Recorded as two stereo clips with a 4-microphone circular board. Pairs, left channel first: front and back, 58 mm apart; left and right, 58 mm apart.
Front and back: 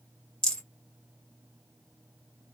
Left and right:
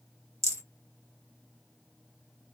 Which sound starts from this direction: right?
A rattle, at 0.4 s.